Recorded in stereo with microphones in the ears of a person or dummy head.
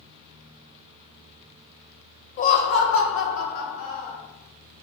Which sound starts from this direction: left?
Laughter, at 2.4 s.